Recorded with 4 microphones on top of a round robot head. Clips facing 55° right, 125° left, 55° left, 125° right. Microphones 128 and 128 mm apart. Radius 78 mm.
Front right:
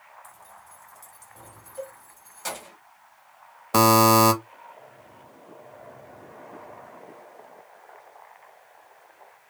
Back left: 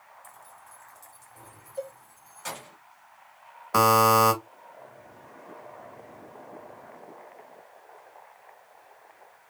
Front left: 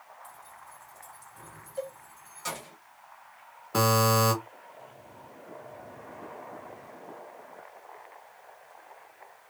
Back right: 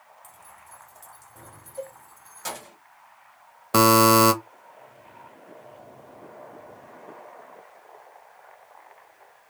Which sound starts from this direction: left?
A cowbell, at 1.8 s.